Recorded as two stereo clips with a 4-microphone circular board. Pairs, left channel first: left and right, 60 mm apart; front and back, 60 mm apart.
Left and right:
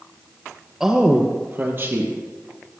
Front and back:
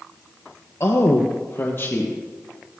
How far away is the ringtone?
No ringtone in this recording.